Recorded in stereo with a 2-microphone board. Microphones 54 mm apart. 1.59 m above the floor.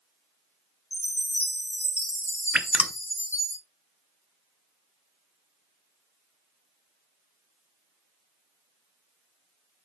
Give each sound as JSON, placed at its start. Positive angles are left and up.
{"t": 0.9, "sound": "a chime", "side_deg": 55, "distance_m": 4.5}
{"t": 2.5, "sound": "dripping", "side_deg": -20, "distance_m": 0.6}